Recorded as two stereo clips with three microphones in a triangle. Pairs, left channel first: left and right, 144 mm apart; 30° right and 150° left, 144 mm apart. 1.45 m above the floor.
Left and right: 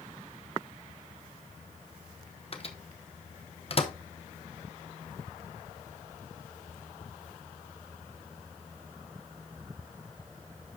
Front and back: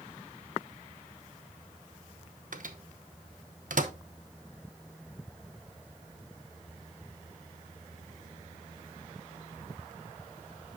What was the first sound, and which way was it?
A microwave, 135° left.